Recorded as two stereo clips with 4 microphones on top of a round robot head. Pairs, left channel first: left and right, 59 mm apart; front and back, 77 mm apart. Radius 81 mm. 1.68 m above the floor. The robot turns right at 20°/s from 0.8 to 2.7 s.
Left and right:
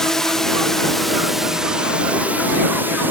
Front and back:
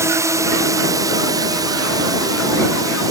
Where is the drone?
170° left; by 3.1 s 145° right.